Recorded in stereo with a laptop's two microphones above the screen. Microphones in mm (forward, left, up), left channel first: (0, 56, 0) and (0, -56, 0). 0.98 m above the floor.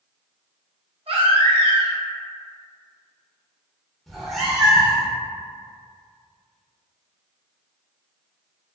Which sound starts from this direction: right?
A baby crying, at 1.1 s.